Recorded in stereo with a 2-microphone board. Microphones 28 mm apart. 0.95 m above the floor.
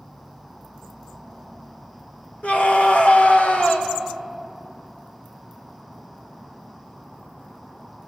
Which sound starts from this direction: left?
A scream, at 2.4 s.